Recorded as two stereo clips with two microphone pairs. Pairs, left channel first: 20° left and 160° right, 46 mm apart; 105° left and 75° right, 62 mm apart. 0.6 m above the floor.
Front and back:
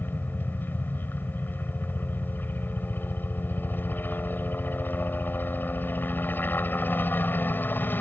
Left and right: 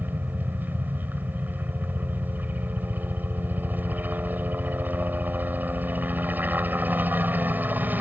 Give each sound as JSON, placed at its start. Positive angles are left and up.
{"t": 0.0, "sound": "a helicopter", "azimuth_deg": -20}